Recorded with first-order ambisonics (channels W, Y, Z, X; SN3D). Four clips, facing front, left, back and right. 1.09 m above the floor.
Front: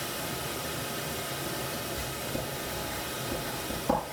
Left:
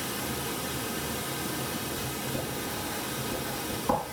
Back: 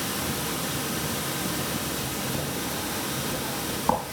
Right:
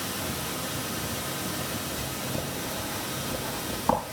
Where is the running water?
165° right, 1.0 m.